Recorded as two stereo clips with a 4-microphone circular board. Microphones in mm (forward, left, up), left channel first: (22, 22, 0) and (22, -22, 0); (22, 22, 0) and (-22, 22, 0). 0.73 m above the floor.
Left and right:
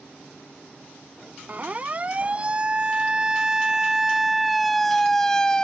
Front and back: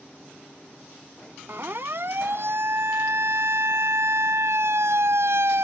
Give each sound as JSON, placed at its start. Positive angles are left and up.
{"t": 1.5, "sound": "a siren", "azimuth_deg": -145}